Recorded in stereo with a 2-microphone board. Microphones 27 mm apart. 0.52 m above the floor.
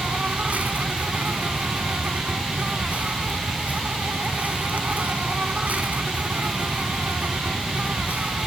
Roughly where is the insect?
Right.